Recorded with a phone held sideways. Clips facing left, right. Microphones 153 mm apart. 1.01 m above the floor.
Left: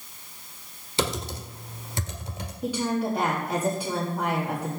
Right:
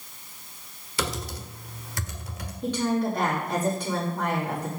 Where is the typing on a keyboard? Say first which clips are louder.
Left 3 dB; 25° left (ahead or behind), 1.2 m.